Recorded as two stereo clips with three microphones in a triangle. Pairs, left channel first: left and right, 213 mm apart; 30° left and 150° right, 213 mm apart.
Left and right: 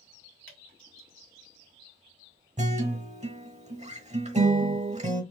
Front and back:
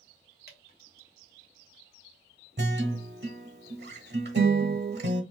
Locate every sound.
0.5 s dripping: 70° left, 1.6 m
2.6 s a guitar: 140° right, 1.0 m